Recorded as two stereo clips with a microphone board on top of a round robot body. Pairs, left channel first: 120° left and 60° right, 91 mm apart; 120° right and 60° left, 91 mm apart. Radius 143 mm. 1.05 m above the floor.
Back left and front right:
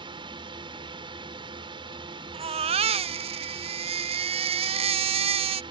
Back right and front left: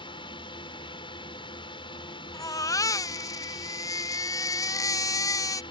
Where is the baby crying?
65° right.